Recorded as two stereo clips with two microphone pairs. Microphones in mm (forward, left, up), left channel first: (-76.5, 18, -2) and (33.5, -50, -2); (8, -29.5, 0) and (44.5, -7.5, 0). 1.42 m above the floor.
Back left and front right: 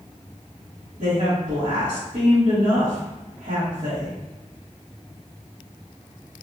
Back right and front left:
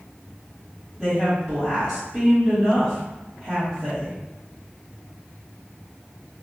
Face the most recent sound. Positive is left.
turn(degrees=-55)